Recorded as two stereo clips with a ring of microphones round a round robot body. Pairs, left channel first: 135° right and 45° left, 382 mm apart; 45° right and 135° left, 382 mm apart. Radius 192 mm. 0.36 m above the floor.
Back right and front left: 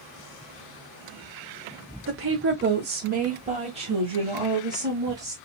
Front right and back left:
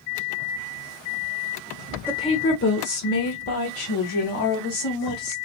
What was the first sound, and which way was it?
A woman speaking, 35° left.